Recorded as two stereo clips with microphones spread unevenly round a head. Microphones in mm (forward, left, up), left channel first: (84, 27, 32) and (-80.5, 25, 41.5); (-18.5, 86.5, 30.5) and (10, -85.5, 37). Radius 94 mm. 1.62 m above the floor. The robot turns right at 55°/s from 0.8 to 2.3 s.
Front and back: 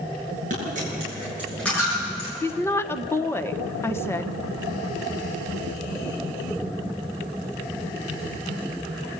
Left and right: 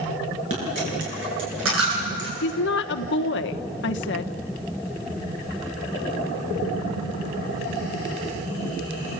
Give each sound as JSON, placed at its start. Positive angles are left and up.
{"t": 0.5, "sound": "a dropped coin", "azimuth_deg": -130, "distance_m": 9.0}
{"t": 2.4, "sound": "a woman speaking", "azimuth_deg": 75, "distance_m": 1.0}